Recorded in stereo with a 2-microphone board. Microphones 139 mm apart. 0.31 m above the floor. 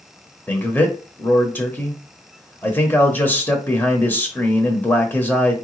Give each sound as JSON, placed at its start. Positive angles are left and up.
{"t": 0.5, "sound": "a man speaking", "side_deg": 15, "distance_m": 1.1}